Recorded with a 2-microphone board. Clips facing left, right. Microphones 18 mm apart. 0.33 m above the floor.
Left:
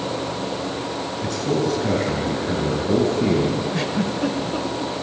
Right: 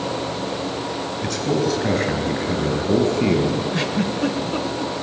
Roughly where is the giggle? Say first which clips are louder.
Right 1 dB; centre.